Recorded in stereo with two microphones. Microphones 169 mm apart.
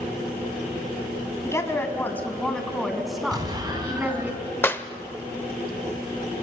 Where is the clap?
10° left (ahead or behind), 0.7 m.